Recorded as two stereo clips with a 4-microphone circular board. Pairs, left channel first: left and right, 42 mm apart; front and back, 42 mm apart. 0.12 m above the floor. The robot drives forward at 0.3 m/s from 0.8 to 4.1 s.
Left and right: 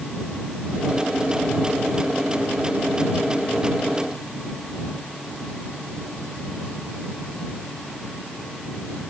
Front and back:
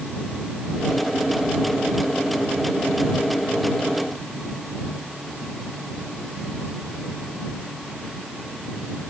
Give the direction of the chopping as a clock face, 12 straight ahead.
No chopping in this recording.